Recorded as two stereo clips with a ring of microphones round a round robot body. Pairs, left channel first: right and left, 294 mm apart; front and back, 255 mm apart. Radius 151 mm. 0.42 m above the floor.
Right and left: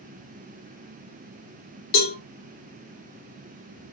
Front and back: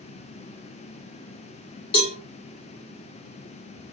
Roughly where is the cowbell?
Ahead right.